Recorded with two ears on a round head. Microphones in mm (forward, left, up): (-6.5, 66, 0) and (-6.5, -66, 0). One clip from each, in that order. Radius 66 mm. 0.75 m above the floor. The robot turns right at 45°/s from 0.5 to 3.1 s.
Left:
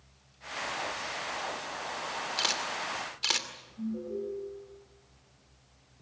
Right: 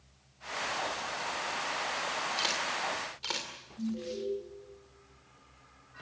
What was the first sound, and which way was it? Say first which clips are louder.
A camera shutter: left 3 dB; 15° left (ahead or behind).